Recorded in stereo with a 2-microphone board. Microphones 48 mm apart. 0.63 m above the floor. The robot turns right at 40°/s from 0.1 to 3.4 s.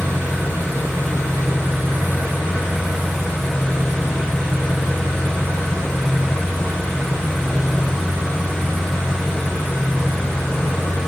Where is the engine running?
120° right, 0.8 m; by 11.1 s 10° left, 0.8 m.